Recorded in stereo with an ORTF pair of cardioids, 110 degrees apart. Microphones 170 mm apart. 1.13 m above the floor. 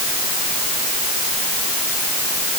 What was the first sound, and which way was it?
Only background noise.